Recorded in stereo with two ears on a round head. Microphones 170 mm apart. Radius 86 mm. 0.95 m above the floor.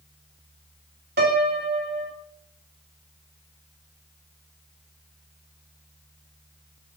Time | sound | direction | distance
1.2 | a piano | 50° right (ahead or behind) | 3 m